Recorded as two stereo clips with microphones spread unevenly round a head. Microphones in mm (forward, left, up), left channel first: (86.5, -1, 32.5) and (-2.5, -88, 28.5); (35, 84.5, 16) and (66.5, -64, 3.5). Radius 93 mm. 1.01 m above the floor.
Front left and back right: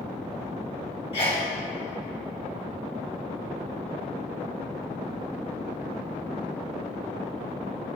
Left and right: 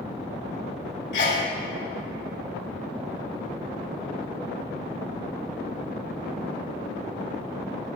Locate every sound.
1.1 s a sneeze: 100° left, 3 m